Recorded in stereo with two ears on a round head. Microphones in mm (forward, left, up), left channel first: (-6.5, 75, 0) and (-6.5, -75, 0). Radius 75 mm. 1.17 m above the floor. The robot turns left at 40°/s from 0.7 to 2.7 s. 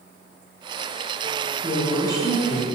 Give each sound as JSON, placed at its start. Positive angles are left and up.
{"t": 1.6, "sound": "a woman speaking", "azimuth_deg": 40, "distance_m": 0.9}